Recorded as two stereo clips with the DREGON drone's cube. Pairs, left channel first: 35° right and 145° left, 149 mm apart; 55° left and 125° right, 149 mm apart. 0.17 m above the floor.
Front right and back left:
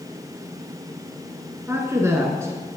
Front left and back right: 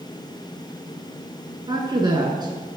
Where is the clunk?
I don't hear a clunk.